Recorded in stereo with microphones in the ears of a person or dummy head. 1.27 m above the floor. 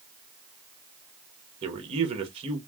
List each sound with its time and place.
1.6 s a man speaking: 35° right (ahead or behind), 1.1 m